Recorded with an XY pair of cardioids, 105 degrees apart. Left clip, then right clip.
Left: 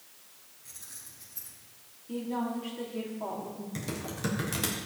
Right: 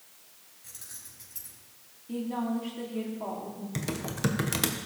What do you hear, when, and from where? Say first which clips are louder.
0.6 s keys jangling: right 1 dB; 60° right, 5.5 m
2.1 s a woman speaking: right 1 dB; 15° right, 3.5 m
3.8 s typing on a keyboard: right 5 dB; 40° right, 1.5 m